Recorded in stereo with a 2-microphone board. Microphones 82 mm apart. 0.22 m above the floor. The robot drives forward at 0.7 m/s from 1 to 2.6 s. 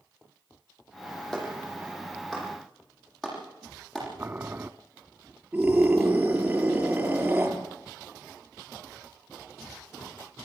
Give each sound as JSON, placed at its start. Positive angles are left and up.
{"t": 1.3, "sound": "a clap", "side_deg": 5, "distance_m": 9.5}
{"t": 4.2, "sound": "boiling", "side_deg": -25, "distance_m": 0.8}
{"t": 5.5, "sound": "a scream", "side_deg": -15, "distance_m": 5.5}